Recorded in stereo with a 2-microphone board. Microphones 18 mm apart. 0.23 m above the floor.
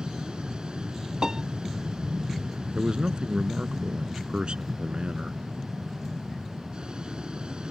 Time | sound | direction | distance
0.0 | an aircraft | 55° right (ahead or behind) | ?
1.2 | a piano | 35° right (ahead or behind) | ?
2.8 | a man speaking | 60° right (ahead or behind) | ?